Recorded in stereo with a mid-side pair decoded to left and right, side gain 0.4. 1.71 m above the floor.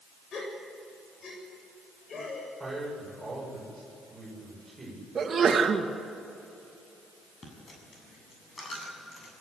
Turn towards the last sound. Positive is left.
turn(degrees=45)